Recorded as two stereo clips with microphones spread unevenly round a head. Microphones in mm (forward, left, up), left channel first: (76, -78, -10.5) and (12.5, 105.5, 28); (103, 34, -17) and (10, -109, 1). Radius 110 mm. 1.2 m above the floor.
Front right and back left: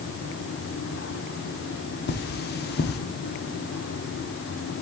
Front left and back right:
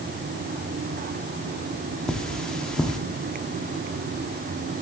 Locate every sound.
2.1 s cutlery clinking: 30° right, 1.2 m